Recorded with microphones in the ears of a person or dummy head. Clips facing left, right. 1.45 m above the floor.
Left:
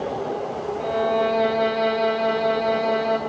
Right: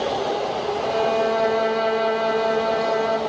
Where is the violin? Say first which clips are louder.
Even; 5° right (ahead or behind), 3 m.